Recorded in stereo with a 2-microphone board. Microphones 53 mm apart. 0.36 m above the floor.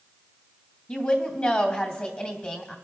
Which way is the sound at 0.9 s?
30° left (ahead or behind).